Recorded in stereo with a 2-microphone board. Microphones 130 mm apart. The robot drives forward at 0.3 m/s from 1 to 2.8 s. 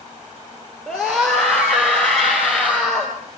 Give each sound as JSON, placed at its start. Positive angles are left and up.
{"t": 0.9, "sound": "a scream", "side_deg": 5, "distance_m": 3.5}